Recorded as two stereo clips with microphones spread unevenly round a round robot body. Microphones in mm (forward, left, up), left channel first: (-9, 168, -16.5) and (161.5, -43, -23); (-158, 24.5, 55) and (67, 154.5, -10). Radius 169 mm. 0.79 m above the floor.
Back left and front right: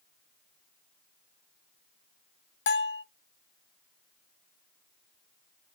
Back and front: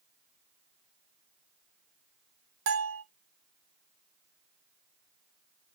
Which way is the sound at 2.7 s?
80° left.